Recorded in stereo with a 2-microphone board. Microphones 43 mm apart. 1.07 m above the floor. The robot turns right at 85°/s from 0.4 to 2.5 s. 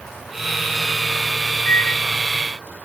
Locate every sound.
1.6 s a microwave: 55° left (ahead or behind), 0.8 m; by 2.0 s 60° left (ahead or behind), 0.8 m